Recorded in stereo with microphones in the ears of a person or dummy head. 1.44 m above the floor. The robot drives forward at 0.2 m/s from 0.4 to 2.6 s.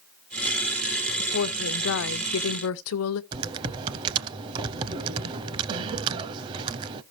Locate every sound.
1.2 s a woman speaking: 70° left (ahead or behind), 0.8 m; by 3.2 s 80° left, 0.7 m
3.3 s typing on a keyboard: 25° right (ahead or behind), 0.5 m